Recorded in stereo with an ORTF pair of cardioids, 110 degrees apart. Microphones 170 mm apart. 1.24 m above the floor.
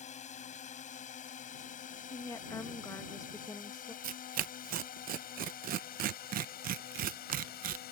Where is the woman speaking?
20° left.